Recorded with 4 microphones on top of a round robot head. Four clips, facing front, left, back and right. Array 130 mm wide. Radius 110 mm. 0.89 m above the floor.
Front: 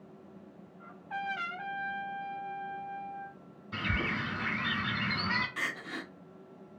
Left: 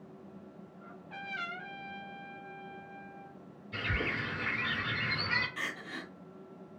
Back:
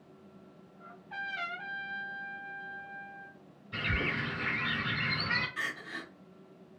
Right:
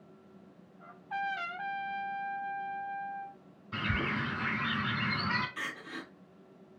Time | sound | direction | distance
0.8 | a trumpet | 30° right | 1.2 m
3.7 | a bird | 45° right | 2 m
5.6 | crying | 5° left | 1.1 m